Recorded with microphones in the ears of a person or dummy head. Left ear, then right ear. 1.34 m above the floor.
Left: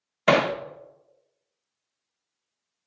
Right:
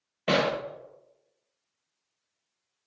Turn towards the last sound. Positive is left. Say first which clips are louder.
# left 5 dB
turn(degrees=55)  # may be behind; listen again after turning